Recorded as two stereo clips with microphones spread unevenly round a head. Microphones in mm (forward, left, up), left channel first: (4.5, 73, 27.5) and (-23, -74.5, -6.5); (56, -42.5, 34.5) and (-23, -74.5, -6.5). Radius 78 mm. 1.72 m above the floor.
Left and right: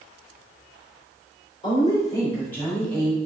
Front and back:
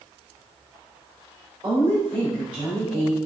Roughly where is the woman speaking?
Behind left.